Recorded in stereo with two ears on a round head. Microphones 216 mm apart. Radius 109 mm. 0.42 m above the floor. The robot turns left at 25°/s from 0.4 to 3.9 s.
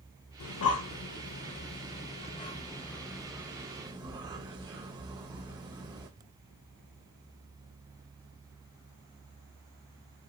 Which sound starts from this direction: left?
Breathing, at 0.4 s.